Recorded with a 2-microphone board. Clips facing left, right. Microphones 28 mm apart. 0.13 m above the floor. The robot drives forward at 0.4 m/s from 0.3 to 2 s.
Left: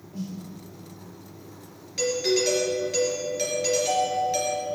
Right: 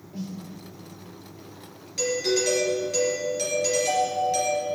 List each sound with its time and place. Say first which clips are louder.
0.1 s a snare drum: even; 15° right (ahead or behind), 3 m
2.0 s a doorbell: left 1 dB; 10° left (ahead or behind), 3 m